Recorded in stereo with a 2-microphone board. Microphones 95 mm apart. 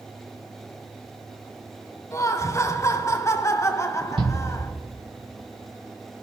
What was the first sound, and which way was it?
Laughter, 30° left (ahead or behind).